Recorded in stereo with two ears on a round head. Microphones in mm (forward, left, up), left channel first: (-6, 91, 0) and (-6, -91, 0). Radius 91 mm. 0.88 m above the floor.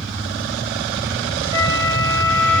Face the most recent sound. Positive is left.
turn(degrees=-20)  # may be behind; listen again after turning